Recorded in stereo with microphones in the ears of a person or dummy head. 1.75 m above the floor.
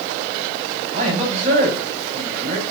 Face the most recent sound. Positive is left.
turn(degrees=-40)  # may be behind; listen again after turning